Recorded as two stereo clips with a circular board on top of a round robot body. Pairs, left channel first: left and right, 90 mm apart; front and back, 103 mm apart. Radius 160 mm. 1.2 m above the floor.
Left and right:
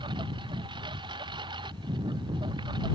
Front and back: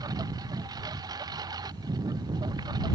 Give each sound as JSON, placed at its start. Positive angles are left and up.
{"t": 0.0, "sound": "a lawn mower", "azimuth_deg": -125}